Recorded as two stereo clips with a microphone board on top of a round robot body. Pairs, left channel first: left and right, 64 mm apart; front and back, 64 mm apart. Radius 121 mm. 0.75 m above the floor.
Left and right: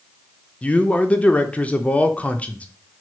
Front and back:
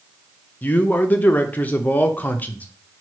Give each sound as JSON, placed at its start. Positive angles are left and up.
{"t": 0.6, "sound": "a man speaking", "azimuth_deg": 35, "distance_m": 0.5}